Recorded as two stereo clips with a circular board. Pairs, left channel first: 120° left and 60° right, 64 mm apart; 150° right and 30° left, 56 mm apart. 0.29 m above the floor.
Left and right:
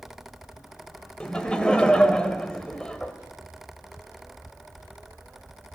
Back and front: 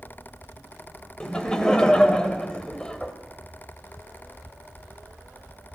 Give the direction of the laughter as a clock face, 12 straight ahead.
6 o'clock.